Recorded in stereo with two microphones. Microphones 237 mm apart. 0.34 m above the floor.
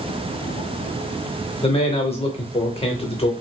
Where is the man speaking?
25° left (ahead or behind), 0.8 m.